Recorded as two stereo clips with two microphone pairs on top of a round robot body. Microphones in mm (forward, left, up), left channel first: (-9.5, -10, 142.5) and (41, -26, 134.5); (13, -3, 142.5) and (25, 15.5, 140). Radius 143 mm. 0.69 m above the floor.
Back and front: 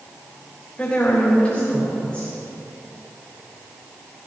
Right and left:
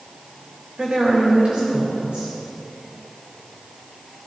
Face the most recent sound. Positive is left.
turn(degrees=95)